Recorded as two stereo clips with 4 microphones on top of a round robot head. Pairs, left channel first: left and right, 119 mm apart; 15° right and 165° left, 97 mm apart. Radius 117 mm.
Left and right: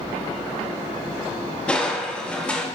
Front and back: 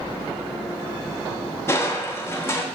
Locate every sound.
1.7 s crushing: 15° left, 1.0 m